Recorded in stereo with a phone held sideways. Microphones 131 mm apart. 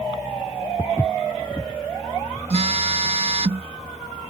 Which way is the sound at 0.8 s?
10° left (ahead or behind).